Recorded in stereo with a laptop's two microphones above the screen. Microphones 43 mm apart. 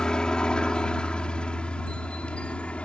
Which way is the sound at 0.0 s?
20° left (ahead or behind).